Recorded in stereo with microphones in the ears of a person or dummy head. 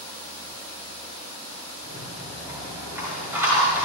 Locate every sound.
1.8 s a rattle: 10° right (ahead or behind), 6.5 m